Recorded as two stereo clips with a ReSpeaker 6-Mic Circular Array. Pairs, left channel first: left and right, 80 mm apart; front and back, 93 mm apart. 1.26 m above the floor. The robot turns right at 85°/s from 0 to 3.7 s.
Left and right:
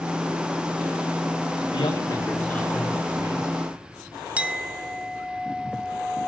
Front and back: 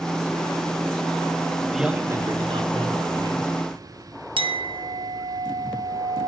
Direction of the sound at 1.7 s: 85° left.